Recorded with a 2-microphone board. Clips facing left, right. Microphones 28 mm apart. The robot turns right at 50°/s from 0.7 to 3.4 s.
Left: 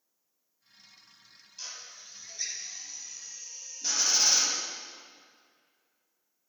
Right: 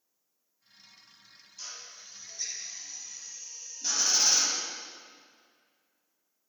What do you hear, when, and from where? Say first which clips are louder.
1.6 s a drill: left 1 dB; 35° left (ahead or behind), 1.7 m; by 4.6 s 5° left (ahead or behind), 1.7 m